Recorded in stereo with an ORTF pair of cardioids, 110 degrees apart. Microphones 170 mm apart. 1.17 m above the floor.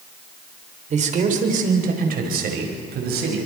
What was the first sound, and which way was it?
A man speaking, 45° right.